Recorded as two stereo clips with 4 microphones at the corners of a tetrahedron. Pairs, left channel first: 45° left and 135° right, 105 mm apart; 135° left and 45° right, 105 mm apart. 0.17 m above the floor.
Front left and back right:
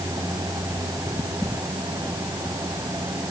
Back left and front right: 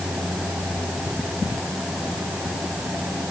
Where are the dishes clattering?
I don't hear dishes clattering.